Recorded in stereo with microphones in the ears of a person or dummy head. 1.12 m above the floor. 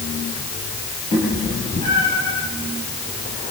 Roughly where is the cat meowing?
Left.